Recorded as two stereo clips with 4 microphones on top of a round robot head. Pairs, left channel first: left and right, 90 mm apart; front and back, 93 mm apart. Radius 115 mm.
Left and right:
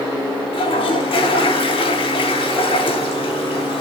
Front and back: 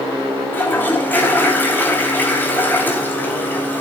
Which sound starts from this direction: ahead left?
A toilet flushing, at 0.5 s.